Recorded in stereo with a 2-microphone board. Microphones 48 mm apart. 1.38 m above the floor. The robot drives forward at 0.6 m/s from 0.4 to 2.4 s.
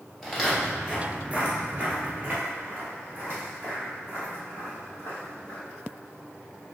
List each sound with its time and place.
0.2 s footsteps: 5° right (ahead or behind), 1.9 m; by 5.6 s 50° right (ahead or behind), 4 m